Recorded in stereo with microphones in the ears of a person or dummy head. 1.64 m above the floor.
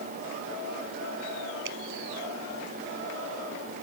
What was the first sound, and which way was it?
A finger snap, 70° right (ahead or behind).